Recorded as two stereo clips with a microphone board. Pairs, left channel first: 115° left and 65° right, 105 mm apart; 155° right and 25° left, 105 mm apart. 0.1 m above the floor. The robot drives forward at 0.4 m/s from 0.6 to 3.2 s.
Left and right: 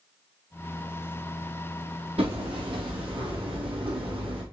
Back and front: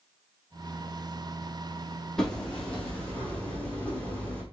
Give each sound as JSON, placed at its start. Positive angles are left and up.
{"t": 2.2, "sound": "hammering", "azimuth_deg": -75, "distance_m": 2.5}